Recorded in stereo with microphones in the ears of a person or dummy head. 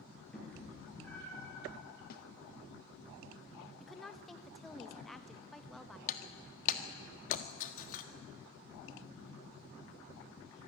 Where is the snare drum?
55° left (ahead or behind), 1.6 m.